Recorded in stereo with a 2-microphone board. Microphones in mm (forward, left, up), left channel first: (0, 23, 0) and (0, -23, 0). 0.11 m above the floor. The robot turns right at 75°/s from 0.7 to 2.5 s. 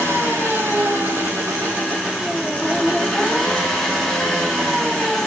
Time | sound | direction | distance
0.0 | an engine running | 125° right | 4.5 m